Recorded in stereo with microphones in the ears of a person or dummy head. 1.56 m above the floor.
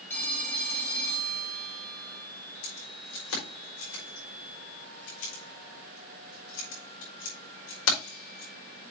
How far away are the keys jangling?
About 5 m.